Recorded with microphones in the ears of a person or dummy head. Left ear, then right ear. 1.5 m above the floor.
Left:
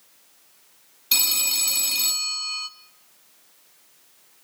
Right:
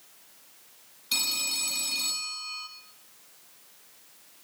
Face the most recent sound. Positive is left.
turn(degrees=25)  # may be behind; listen again after turning